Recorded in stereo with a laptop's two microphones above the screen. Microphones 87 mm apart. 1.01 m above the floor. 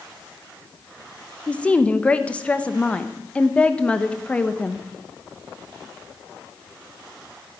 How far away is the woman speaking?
About 1.0 m.